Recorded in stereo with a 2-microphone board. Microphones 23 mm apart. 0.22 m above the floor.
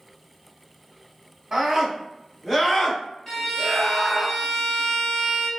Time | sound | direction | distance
1.5 | a scream | 25° right (ahead or behind) | 1.3 m
3.3 | a violin | 10° left (ahead or behind) | 1.5 m